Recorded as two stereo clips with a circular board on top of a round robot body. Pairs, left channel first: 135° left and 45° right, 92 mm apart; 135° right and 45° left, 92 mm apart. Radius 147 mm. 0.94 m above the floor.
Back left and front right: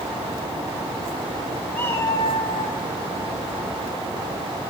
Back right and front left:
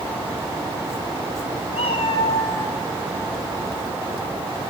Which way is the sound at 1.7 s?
150° right.